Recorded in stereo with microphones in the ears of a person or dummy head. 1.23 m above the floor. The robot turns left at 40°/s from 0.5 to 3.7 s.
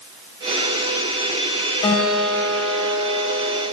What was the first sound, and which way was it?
A guitar, 150° left.